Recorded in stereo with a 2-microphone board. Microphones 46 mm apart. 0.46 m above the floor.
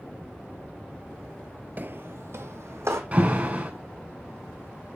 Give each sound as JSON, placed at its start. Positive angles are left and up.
{"t": 1.8, "sound": "footsteps", "side_deg": -40, "distance_m": 0.5}
{"t": 3.1, "sound": "an alarm", "side_deg": -30, "distance_m": 4.5}